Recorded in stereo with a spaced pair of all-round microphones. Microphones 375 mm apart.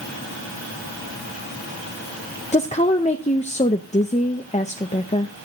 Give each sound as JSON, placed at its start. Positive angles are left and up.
{"t": 2.5, "sound": "a woman speaking", "side_deg": 20, "distance_m": 0.5}